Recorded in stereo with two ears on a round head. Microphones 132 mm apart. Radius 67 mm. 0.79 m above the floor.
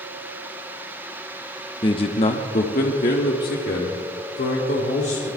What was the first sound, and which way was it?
A man speaking, 30° left (ahead or behind).